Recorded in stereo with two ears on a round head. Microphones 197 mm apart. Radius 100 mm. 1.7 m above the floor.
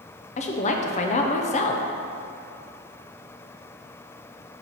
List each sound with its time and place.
0.4 s a woman speaking: 30° left (ahead or behind), 0.6 m